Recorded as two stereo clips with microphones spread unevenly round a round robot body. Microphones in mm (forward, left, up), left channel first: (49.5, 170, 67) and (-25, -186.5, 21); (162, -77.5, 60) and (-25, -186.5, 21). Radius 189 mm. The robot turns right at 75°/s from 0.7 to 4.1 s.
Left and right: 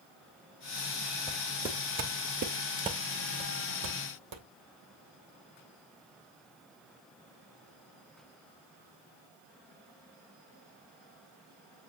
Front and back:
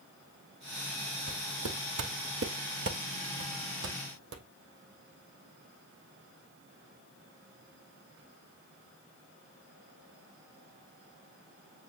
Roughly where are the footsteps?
Behind left.